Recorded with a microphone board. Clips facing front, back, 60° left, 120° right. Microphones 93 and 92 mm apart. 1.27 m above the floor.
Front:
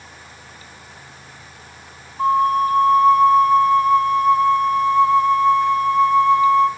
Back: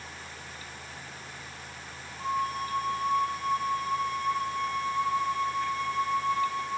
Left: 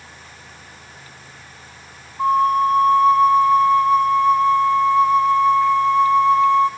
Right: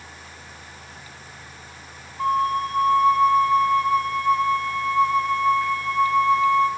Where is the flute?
10° right, 3 m.